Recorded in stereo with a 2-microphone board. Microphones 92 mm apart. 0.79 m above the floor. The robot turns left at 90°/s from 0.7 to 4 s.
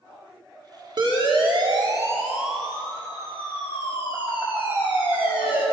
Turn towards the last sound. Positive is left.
turn(degrees=70)  # may be behind; listen again after turning